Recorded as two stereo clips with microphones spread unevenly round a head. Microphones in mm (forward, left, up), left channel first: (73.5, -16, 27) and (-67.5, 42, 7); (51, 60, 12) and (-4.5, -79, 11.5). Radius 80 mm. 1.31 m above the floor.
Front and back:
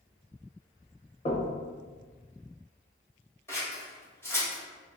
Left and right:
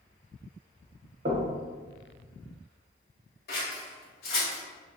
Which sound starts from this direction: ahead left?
Scissors, at 3.5 s.